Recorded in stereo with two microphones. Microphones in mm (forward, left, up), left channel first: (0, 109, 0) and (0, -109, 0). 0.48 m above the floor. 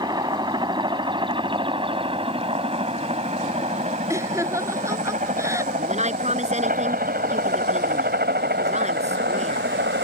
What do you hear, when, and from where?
0.0 s a helicopter: 20° right (ahead or behind); by 10.0 s 55° right (ahead or behind)
4.1 s laughter: 15° right (ahead or behind)
5.8 s a woman speaking: 30° right (ahead or behind)